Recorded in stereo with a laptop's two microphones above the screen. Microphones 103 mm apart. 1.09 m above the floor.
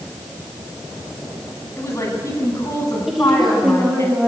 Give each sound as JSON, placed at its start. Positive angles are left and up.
{"t": 1.8, "sound": "a woman speaking", "side_deg": 30, "distance_m": 7.5}
{"t": 3.1, "sound": "a woman speaking", "side_deg": -5, "distance_m": 3.0}